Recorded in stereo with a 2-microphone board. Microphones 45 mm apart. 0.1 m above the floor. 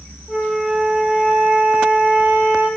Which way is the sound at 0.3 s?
5° left (ahead or behind).